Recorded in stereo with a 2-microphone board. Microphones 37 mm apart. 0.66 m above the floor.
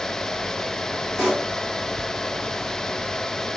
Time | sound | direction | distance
1.2 | a pop | 10° right (ahead or behind) | 4 m